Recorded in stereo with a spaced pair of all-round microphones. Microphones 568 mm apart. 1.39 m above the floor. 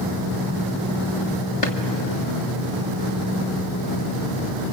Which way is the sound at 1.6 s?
65° left (ahead or behind).